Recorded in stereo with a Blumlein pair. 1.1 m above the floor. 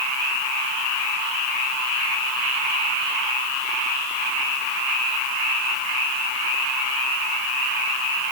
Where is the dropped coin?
No dropped coin in this recording.